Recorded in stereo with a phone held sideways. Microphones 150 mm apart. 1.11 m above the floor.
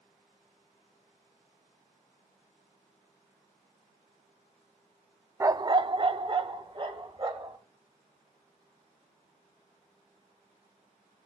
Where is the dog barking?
20° right (ahead or behind), 0.6 m; by 7.6 s 35° right (ahead or behind), 2.5 m.